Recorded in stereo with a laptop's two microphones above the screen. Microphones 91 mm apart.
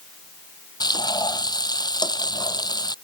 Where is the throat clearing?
No throat clearing in this recording.